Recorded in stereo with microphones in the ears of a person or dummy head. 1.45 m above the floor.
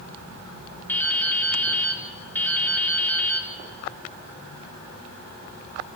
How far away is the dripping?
About 1.4 m.